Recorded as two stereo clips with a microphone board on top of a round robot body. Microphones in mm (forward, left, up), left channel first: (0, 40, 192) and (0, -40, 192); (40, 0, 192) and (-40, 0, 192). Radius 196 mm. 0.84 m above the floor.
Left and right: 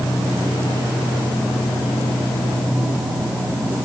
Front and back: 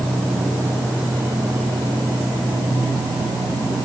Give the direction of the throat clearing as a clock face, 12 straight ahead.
No throat clearing in this recording.